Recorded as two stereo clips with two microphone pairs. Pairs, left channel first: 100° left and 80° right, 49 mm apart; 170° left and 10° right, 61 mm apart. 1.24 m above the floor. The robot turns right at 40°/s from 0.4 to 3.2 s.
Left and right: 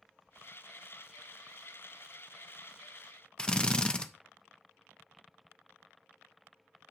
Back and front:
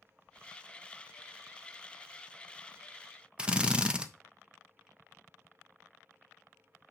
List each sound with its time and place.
3.4 s a drill: 45° left, 0.6 m